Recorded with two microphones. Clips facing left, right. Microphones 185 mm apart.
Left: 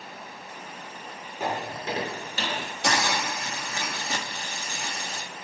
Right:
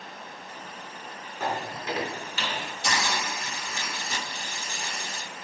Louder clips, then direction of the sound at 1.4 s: Left 1 dB; 15° left (ahead or behind).